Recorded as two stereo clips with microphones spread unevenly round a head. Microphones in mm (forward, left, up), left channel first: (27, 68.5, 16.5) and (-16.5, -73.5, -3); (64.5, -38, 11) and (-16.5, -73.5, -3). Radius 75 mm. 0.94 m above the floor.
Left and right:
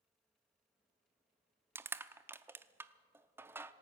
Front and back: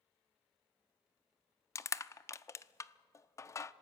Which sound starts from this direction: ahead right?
Crushing, at 1.8 s.